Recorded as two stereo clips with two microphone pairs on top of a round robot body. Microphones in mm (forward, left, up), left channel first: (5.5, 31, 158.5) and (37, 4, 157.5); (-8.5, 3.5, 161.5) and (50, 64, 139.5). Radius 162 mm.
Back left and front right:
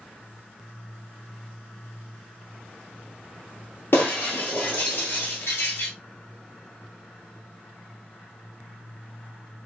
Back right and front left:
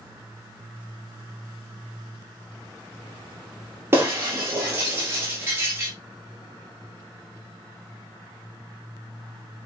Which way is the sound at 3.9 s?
115° left.